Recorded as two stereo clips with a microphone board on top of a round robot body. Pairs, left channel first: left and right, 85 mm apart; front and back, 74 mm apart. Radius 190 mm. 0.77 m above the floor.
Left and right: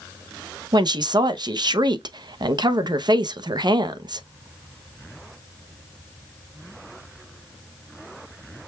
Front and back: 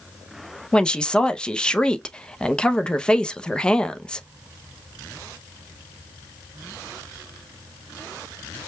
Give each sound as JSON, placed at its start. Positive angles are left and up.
{"t": 0.7, "sound": "a woman speaking", "azimuth_deg": -75, "distance_m": 0.8}